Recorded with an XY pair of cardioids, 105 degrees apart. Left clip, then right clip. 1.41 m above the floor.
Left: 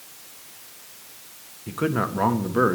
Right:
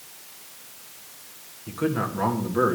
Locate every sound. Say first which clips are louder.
1.7 s a man speaking: left 2 dB; 35° left, 1.3 m; by 2.8 s 30° left, 1.8 m